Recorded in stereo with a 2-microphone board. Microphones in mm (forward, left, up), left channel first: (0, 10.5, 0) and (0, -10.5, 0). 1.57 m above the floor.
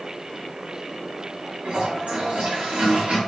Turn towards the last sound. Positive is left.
turn(degrees=-80)